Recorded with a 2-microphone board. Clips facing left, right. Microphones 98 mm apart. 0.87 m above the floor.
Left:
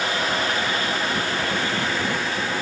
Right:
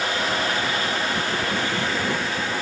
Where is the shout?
I don't hear a shout.